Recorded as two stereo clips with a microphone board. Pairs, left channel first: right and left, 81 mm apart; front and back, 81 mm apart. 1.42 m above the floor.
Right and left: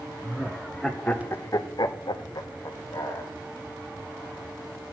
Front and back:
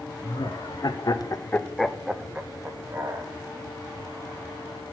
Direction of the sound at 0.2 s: 5° left.